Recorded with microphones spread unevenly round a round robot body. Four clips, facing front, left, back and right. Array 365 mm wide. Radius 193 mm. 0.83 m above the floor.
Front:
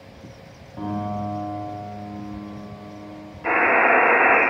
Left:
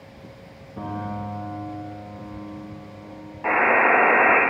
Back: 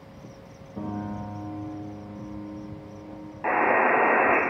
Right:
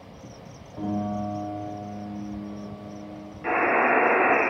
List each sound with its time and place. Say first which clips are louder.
0.8 s a piano: right 2 dB, front 5 dB; 145° left, 3.5 m
3.4 s a buzzer: left 3 dB, front 3 dB; 140° left, 1.8 m